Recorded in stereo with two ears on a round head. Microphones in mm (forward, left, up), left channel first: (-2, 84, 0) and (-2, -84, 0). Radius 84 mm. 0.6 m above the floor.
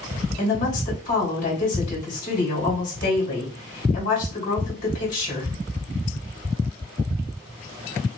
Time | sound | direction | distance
0.4 | a woman speaking | 45° left (ahead or behind) | 2.5 m